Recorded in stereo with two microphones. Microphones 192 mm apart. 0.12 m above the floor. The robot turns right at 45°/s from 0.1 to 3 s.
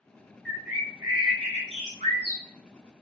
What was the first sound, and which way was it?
A bird, straight behind.